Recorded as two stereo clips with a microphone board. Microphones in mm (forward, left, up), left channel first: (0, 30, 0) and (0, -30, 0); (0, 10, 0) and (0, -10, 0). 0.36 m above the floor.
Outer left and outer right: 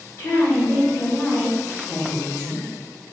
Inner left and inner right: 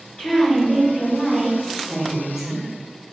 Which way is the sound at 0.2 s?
45° left (ahead or behind).